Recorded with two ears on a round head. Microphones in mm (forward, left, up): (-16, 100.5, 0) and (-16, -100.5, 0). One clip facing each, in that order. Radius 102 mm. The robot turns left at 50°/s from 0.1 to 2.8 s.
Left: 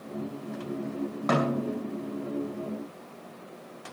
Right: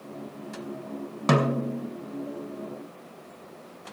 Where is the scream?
I don't hear a scream.